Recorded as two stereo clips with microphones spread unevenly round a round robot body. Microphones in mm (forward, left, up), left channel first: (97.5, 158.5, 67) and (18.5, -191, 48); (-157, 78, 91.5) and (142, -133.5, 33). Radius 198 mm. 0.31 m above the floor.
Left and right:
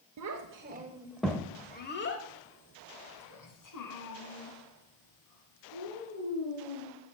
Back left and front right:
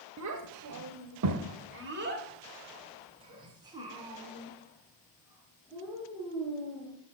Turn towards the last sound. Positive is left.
turn(degrees=50)